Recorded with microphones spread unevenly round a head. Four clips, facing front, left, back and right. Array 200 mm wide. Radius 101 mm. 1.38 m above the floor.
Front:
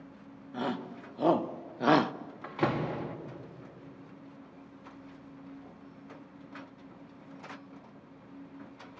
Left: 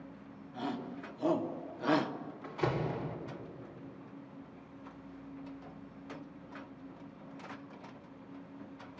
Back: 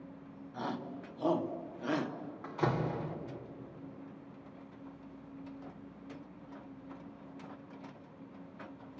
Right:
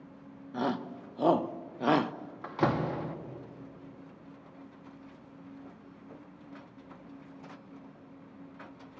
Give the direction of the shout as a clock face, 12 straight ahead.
2 o'clock.